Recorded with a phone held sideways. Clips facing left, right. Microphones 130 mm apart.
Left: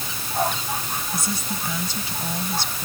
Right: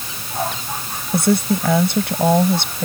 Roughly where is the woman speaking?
Right.